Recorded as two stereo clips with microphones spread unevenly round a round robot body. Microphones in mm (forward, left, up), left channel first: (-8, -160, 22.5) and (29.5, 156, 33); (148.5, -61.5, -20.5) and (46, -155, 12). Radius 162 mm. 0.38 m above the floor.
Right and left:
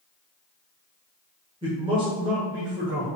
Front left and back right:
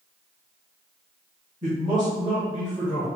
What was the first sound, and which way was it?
A man speaking, 155° left.